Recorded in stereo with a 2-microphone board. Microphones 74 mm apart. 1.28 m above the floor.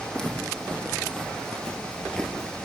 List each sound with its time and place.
0.1 s footsteps: 5° left (ahead or behind), 3.5 m; by 2.7 s 10° left (ahead or behind), 1.3 m